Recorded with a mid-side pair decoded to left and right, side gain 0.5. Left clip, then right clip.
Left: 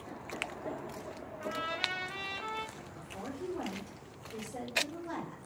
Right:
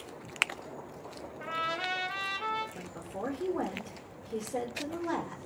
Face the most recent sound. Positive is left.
turn(degrees=-50)